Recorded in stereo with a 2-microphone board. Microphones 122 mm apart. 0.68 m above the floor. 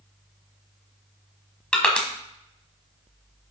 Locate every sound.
1.7 s crushing: 10° left (ahead or behind), 1.2 m